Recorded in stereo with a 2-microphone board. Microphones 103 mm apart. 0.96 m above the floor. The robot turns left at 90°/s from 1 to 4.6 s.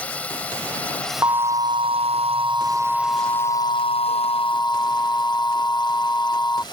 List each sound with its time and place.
0.0 s a drone: 15° left; by 6.7 s 50° left
1.2 s an alarm: 30° right; by 6.6 s 25° left